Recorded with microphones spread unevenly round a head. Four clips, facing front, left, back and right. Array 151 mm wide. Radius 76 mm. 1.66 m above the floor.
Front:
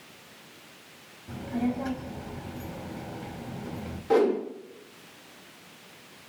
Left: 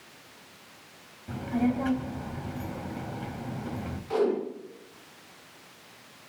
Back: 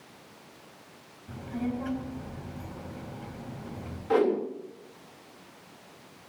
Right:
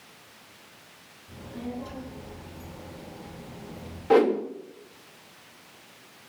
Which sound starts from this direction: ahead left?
A child speaking, at 1.3 s.